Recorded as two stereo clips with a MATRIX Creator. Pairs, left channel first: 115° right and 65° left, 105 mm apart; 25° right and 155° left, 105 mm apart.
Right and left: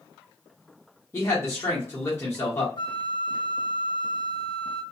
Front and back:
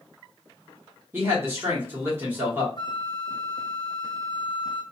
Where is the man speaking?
155° right, 1.2 m.